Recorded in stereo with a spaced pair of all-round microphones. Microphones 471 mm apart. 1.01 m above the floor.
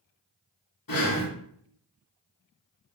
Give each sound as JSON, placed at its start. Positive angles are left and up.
{"t": 0.9, "sound": "breathing", "side_deg": 45, "distance_m": 0.7}